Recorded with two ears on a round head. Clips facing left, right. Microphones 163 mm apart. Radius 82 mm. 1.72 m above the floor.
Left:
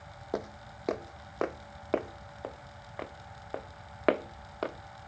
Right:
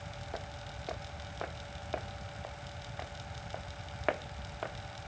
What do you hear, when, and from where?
0.3 s footsteps: 55° left (ahead or behind); by 5.1 s 50° left (ahead or behind)